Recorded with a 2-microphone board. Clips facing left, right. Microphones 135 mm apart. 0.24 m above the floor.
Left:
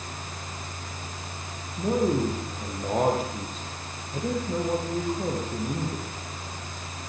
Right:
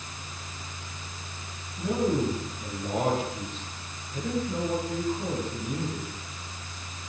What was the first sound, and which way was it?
A man speaking, 40° left (ahead or behind).